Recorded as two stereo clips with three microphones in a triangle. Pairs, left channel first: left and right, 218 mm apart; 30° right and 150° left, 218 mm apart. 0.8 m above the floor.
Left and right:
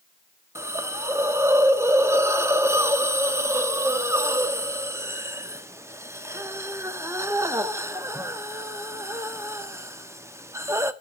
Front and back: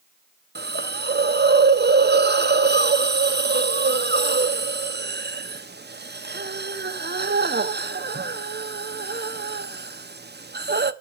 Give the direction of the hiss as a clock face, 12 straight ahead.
6 o'clock.